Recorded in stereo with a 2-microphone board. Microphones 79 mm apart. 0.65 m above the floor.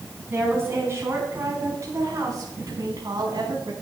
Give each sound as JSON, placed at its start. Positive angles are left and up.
{"t": 0.3, "sound": "a woman speaking", "side_deg": -30, "distance_m": 5.0}